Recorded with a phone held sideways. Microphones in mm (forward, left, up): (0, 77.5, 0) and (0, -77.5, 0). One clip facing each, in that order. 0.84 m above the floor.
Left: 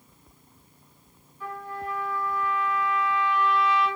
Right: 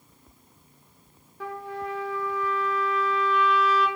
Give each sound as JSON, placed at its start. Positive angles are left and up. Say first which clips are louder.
{"t": 1.4, "sound": "a trumpet", "louder": "right 2 dB", "side_deg": -85, "distance_m": 0.7}